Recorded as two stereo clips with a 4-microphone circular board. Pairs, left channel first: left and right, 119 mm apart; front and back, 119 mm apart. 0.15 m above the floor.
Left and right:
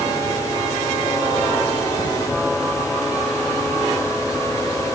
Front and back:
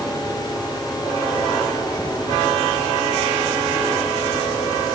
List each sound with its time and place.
Only background noise.